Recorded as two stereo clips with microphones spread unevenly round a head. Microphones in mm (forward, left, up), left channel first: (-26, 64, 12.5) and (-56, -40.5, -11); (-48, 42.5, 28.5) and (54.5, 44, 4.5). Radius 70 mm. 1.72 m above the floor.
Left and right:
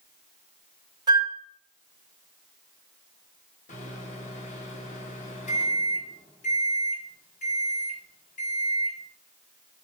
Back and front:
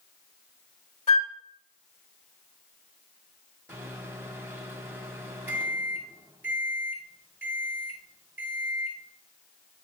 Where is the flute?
160° right, 3 m.